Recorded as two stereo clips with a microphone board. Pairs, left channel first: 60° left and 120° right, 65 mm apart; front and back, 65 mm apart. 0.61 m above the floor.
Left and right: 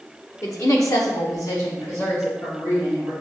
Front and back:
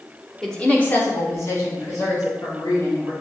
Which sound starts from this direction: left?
A woman speaking, at 0.4 s.